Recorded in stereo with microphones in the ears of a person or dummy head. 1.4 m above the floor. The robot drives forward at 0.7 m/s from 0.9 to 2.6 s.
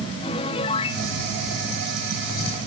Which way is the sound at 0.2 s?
25° left (ahead or behind).